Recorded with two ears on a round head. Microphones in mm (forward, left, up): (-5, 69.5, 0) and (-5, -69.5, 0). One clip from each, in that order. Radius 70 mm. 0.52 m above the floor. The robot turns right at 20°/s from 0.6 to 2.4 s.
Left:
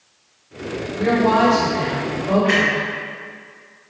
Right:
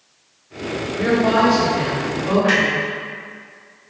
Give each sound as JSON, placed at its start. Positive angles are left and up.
{"t": 0.9, "sound": "a woman speaking", "side_deg": -35, "distance_m": 1.8}
{"t": 2.4, "sound": "a clunk", "side_deg": -50, "distance_m": 1.9}